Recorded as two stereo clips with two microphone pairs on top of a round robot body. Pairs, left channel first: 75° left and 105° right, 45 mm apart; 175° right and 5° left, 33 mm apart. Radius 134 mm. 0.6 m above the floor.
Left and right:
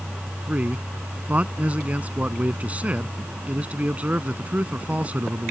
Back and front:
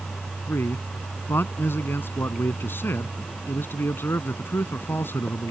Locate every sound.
0.5 s a man speaking: 165° right